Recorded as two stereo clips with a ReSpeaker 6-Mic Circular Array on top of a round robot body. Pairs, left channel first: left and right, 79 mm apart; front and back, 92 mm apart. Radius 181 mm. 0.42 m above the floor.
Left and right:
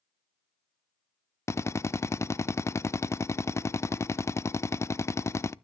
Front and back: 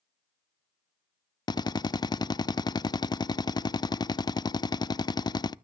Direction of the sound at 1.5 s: 35° left.